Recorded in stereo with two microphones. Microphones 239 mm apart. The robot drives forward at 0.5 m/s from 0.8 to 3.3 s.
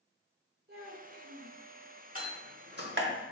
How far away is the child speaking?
About 1.3 m.